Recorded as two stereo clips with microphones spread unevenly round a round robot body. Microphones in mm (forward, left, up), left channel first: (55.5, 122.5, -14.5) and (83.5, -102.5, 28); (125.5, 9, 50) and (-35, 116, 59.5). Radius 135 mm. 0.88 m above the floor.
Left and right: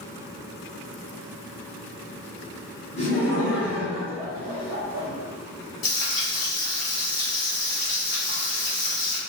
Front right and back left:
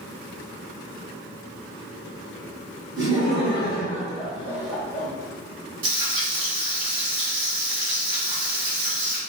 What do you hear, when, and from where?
3.0 s laughter: 150° left, 1.4 m; by 5.1 s 100° right, 0.9 m
5.8 s frying: 125° left, 1.2 m